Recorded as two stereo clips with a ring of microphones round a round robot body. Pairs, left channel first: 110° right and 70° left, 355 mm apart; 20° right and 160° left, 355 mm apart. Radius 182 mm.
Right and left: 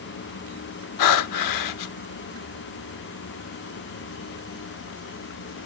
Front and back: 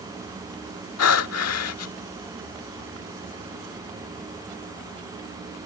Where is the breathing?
75° right.